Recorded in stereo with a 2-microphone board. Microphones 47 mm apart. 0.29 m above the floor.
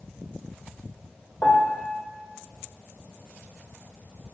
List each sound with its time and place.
1.4 s a piano: 30° left (ahead or behind), 2.5 m